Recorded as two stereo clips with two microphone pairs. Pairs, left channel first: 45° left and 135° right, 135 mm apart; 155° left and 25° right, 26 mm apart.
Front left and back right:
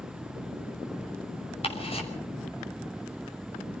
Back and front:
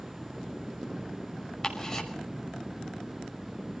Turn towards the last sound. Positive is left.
turn(degrees=85)